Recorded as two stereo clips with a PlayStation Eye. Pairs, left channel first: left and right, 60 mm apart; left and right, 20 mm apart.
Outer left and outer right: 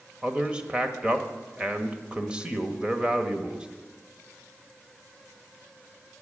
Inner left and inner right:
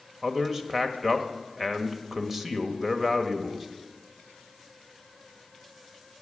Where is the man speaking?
15° right (ahead or behind), 1.4 m.